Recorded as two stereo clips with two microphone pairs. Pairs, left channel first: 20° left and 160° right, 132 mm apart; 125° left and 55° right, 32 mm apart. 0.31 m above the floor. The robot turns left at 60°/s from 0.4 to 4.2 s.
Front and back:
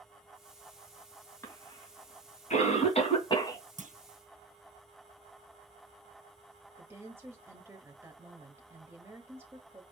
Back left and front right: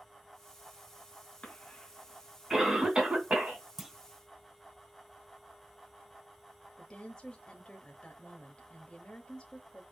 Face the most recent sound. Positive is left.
turn(degrees=150)